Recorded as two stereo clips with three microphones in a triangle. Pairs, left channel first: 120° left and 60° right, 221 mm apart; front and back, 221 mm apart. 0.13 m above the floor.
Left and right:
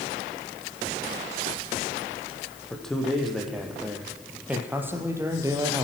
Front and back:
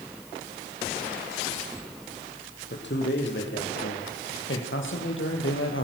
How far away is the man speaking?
About 4.5 m.